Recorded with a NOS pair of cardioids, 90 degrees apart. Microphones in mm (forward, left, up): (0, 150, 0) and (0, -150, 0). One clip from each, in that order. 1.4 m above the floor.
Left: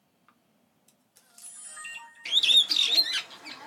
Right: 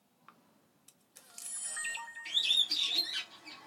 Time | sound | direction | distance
0.3 | a camera shutter | 20° right | 0.7 m
2.2 | a bird | 60° left | 0.6 m